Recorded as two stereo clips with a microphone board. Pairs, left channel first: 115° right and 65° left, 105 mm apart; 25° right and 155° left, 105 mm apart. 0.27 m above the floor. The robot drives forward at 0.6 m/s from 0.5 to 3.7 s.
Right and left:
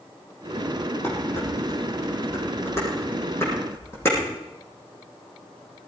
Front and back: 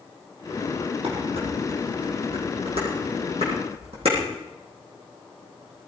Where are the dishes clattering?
Straight behind, 8 m.